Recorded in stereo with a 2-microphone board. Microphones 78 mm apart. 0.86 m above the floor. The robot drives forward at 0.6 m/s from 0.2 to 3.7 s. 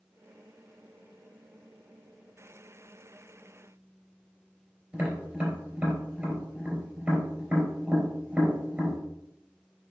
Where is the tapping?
15° right (ahead or behind), 3.5 m.